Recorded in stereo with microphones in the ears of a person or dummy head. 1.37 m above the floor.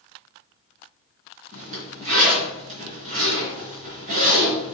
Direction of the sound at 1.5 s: 40° right (ahead or behind).